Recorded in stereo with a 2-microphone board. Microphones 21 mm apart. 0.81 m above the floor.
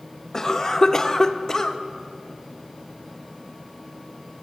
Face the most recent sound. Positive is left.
turn(degrees=20)  # may be behind; listen again after turning